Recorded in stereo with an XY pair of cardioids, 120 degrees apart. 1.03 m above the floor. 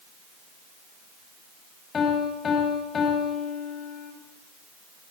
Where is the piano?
40° left, 6 m.